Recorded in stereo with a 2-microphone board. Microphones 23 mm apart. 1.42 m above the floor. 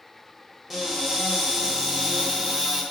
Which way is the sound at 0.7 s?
15° right (ahead or behind).